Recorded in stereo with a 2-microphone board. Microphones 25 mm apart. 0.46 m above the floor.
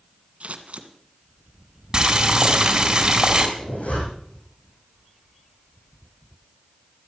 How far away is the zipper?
About 7 m.